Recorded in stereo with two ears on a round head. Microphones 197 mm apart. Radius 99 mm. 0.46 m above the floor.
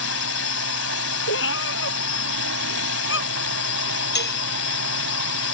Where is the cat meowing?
55° left (ahead or behind).